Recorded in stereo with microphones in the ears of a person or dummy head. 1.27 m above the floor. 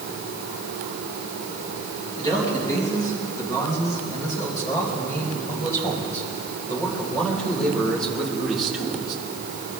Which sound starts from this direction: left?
A man speaking, at 2.2 s.